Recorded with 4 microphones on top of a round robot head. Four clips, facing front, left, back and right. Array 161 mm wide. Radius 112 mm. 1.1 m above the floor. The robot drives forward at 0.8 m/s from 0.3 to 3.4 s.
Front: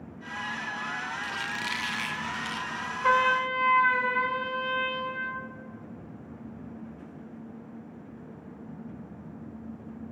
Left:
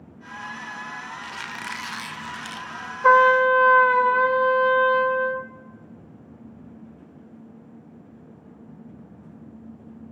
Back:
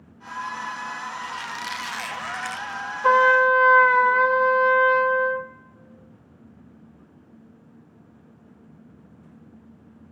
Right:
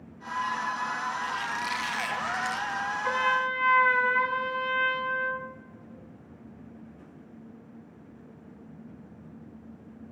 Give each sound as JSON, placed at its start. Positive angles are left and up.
{"t": 1.2, "sound": "a squeak", "azimuth_deg": 80, "distance_m": 1.0}
{"t": 3.0, "sound": "a trumpet", "azimuth_deg": 110, "distance_m": 0.7}